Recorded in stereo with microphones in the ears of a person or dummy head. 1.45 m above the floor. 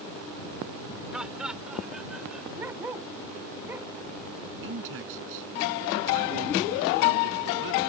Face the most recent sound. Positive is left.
turn(degrees=-60)  # may be behind; listen again after turning